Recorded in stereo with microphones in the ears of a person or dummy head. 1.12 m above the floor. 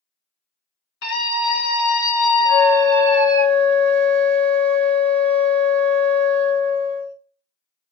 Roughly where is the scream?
Left.